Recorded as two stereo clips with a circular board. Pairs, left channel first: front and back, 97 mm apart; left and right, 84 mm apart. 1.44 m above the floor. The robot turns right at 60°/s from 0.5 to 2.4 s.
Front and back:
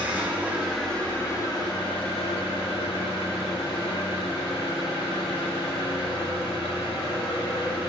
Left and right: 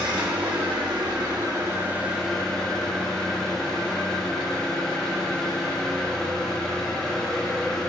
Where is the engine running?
105° right, 1.7 m; by 7.9 s 10° left, 1.7 m.